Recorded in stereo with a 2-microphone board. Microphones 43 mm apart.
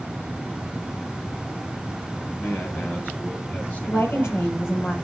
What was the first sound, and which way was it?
A man speaking, 55° left (ahead or behind).